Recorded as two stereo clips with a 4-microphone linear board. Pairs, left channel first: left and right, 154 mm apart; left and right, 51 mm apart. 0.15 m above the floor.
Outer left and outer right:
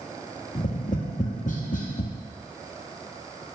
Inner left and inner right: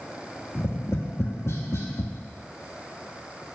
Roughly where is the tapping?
Left.